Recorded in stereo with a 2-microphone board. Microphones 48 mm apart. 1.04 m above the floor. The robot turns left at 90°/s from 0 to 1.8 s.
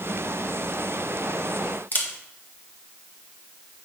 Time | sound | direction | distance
1.9 | a camera shutter | 40° left (ahead or behind) | 1.4 m